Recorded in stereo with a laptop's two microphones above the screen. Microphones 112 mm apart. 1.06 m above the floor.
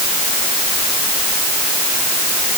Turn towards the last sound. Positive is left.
No sound to turn to.